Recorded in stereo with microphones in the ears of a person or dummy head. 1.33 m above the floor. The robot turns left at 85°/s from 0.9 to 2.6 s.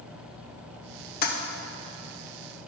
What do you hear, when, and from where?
1.2 s a toilet flushing: 50° left (ahead or behind), 0.7 m; by 1.3 s 55° left (ahead or behind), 0.7 m